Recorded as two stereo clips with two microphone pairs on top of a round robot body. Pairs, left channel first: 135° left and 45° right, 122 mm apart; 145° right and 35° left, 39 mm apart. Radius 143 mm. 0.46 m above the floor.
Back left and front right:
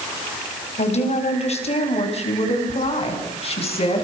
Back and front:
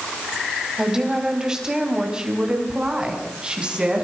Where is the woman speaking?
110° left, 5 m; by 4.0 s 100° left, 7 m.